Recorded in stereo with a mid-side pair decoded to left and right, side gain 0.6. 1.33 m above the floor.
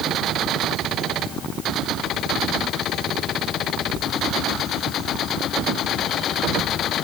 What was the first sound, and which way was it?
Only background noise.